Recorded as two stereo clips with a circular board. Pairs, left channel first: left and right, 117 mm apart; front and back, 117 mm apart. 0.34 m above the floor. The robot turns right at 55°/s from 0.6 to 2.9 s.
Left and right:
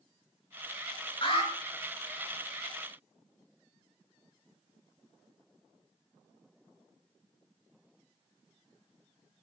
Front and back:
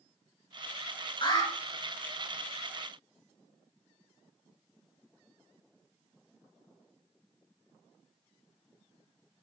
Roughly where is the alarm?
Ahead left.